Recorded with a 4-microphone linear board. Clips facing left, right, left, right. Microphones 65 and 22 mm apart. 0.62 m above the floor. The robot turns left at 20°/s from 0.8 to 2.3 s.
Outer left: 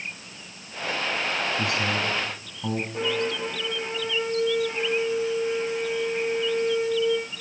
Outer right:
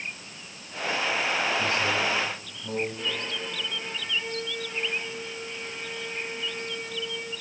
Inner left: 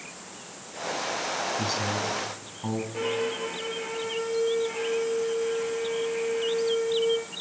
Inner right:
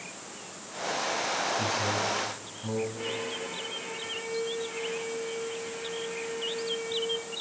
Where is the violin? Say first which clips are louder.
Outer left 7 dB, inner left 5 dB; 75° left (ahead or behind), 9.5 m.